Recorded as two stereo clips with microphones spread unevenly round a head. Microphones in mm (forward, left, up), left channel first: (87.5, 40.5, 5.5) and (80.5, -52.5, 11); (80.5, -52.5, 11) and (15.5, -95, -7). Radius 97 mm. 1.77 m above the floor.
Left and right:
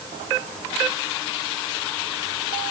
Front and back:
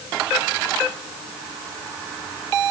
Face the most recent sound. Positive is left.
No sound to turn to.